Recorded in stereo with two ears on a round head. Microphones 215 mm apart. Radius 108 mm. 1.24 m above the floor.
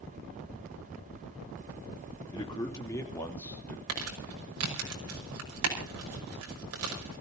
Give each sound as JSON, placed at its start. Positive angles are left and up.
{"t": 2.3, "sound": "a man speaking", "side_deg": 20, "distance_m": 3.0}
{"t": 3.9, "sound": "crumpling", "side_deg": -65, "distance_m": 5.5}